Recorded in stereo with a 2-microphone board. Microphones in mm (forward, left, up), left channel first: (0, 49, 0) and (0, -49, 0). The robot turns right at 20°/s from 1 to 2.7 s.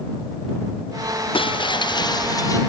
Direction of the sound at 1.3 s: 60° left (ahead or behind).